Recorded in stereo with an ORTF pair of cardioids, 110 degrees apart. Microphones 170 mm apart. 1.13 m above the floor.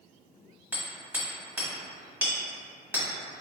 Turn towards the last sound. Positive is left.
turn(degrees=-10)